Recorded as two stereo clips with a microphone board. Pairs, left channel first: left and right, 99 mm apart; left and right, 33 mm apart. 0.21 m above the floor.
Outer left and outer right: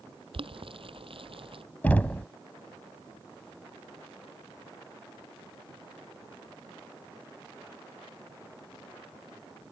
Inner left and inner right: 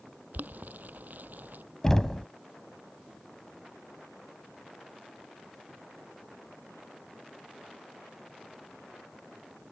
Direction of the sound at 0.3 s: 65° right (ahead or behind).